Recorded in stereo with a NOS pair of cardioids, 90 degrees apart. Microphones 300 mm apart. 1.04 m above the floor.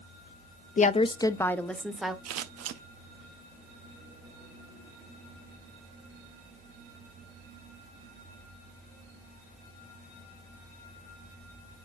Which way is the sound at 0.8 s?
30° left.